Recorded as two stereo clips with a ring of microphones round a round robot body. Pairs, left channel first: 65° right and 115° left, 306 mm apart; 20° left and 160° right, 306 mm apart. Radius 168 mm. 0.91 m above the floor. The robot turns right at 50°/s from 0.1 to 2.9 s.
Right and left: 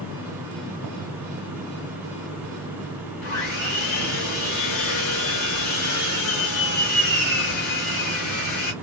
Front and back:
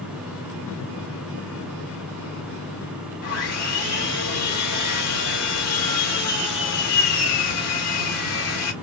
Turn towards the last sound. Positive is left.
turn(degrees=-20)